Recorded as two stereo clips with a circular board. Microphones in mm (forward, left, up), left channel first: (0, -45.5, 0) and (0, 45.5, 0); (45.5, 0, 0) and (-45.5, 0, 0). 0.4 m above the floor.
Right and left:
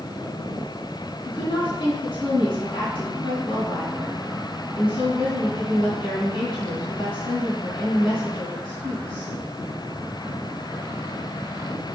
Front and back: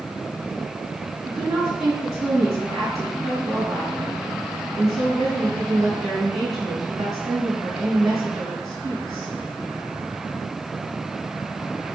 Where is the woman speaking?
115° right, 2.5 m.